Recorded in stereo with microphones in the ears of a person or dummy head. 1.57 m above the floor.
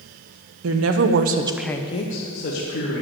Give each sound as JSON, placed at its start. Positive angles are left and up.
{"t": 0.6, "sound": "a woman speaking", "side_deg": -85, "distance_m": 1.2}